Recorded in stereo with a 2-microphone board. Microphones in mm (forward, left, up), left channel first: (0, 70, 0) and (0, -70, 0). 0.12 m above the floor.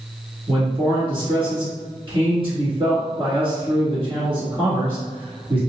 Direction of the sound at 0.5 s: 35° right (ahead or behind).